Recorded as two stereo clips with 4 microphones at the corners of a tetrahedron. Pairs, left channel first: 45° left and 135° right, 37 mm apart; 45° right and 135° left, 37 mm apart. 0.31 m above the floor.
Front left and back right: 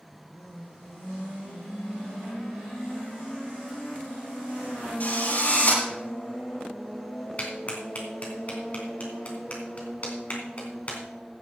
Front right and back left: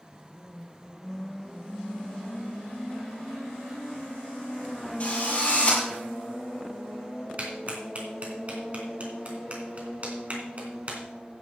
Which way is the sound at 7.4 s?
90° left.